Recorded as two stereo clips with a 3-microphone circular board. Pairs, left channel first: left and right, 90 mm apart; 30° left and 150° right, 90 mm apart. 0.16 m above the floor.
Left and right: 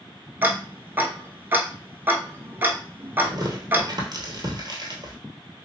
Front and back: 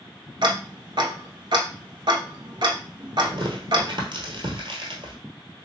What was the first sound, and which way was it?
Ticking, 155° right.